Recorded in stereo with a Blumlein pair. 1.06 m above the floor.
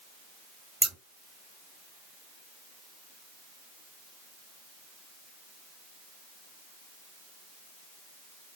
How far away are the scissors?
About 1.2 m.